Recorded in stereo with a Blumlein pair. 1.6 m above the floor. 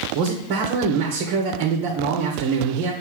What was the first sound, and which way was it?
A man speaking, 40° right.